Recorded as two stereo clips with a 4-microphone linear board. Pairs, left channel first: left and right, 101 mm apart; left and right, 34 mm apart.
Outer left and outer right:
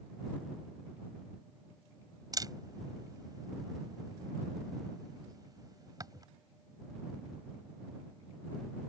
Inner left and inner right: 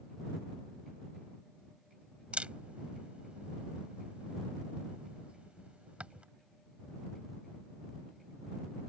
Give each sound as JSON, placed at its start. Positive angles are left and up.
{"t": 2.3, "sound": "a camera shutter", "side_deg": -40}